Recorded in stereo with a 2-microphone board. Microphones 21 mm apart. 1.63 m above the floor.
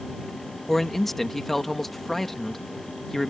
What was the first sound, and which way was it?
A man speaking, 15° left (ahead or behind).